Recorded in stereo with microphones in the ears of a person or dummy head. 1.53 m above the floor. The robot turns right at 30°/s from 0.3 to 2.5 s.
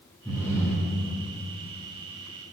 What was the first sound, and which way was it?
Breathing, 5° left (ahead or behind).